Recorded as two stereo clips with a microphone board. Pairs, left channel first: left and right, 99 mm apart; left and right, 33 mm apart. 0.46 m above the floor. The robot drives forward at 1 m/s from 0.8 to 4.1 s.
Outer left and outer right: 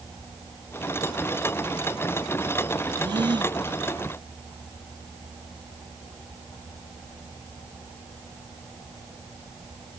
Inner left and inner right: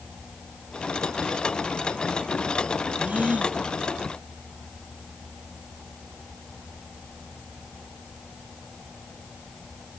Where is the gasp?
45° right (ahead or behind).